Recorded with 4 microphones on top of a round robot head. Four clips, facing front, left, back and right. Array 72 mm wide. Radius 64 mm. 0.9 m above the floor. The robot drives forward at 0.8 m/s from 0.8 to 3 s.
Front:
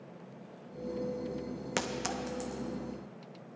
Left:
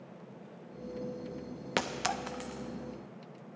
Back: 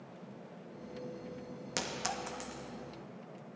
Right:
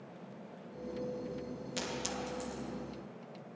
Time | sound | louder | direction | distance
1.8 | a clink | left 7 dB, front 3 dB | 65° left | 0.6 m